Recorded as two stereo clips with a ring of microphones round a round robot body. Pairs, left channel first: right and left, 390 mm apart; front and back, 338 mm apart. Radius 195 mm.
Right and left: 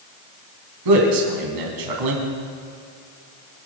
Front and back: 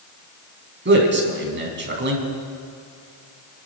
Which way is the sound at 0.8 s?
125° left.